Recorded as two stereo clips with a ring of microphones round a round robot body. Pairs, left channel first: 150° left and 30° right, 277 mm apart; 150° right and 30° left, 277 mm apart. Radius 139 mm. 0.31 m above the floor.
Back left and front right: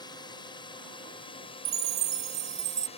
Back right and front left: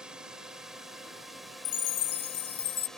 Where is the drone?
110° left; by 3.0 s 125° left.